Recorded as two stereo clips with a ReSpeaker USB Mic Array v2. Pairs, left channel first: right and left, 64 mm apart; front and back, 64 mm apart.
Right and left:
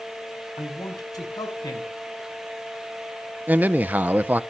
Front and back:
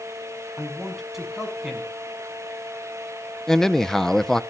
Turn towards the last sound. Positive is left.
turn(degrees=75)